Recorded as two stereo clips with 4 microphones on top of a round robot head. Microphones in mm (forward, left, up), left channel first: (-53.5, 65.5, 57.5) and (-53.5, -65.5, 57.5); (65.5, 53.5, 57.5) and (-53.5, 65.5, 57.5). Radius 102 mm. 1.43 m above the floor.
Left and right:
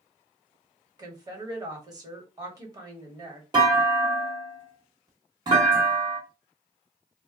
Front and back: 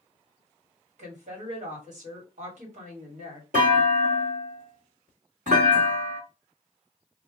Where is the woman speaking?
150° right, 1.3 m.